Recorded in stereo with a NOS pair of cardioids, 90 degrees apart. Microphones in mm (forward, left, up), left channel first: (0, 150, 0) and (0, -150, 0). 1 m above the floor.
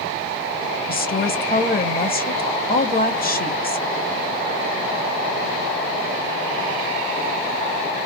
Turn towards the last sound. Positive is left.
turn(degrees=30)